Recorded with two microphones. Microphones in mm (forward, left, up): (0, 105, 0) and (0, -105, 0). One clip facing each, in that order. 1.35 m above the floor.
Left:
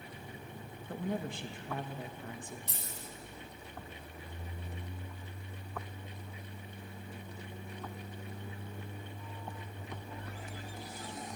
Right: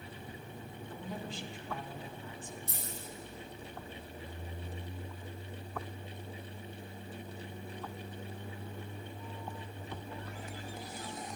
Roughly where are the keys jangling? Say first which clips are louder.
Right 2 dB; left.